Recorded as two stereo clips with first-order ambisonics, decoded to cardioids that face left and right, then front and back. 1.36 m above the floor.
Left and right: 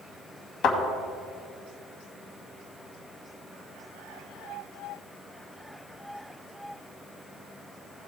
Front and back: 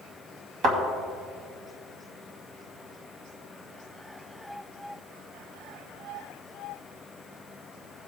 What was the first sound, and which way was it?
A thud, 130° left.